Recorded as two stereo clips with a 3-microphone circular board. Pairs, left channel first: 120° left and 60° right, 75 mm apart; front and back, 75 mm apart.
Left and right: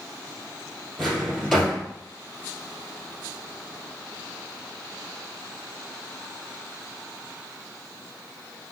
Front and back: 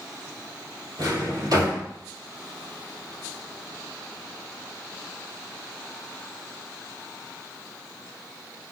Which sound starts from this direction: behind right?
A drawer, at 1.0 s.